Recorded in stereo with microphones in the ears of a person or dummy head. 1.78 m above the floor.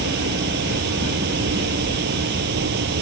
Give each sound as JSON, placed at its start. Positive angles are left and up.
{"t": 0.0, "sound": "a fan", "side_deg": -55}